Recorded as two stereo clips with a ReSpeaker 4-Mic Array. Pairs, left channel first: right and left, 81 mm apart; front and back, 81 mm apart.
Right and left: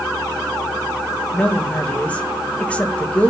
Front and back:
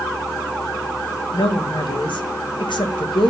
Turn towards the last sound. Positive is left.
turn(degrees=-15)